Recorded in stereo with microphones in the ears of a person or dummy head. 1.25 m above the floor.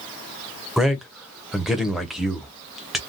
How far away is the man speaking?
About 0.8 m.